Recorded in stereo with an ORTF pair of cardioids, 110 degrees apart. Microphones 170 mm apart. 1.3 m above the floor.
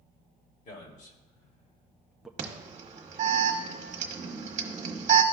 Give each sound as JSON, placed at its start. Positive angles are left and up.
{"t": 0.7, "sound": "a man speaking", "azimuth_deg": 55, "distance_m": 2.0}
{"t": 2.4, "sound": "an alarm", "azimuth_deg": -45, "distance_m": 1.3}